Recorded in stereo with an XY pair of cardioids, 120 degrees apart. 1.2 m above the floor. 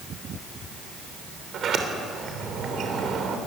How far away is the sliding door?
About 3 m.